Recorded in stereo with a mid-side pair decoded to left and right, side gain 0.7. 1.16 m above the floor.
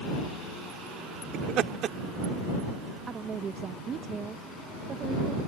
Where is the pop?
I don't hear a pop.